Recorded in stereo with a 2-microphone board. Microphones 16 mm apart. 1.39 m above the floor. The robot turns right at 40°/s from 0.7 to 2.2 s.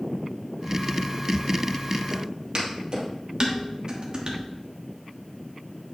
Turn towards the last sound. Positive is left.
turn(degrees=-50)  # may be behind; listen again after turning